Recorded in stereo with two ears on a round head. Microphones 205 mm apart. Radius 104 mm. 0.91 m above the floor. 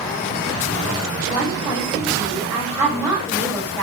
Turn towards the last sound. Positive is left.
turn(degrees=-15)  # may be behind; listen again after turning